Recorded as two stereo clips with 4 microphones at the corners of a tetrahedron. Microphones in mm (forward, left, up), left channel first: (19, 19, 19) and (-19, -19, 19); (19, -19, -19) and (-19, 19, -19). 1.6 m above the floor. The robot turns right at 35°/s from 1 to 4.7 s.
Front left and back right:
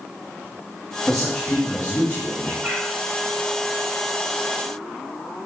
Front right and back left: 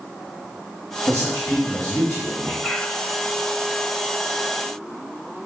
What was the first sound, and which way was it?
A man speaking, 25° right.